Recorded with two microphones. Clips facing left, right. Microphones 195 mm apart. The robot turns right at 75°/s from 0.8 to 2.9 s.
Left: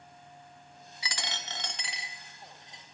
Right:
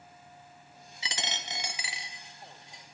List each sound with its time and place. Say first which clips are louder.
1.0 s a dropped coin: right 2 dB; 25° right (ahead or behind), 0.7 m; by 2.8 s 25° left (ahead or behind), 0.7 m